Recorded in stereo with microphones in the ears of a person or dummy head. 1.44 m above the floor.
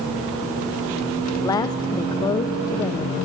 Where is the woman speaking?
20° left (ahead or behind), 0.8 m.